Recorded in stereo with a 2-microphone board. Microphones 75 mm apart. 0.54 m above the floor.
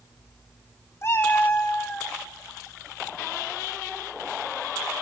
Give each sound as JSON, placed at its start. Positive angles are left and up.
{"t": 1.0, "sound": "a cat meowing", "side_deg": 40, "distance_m": 0.7}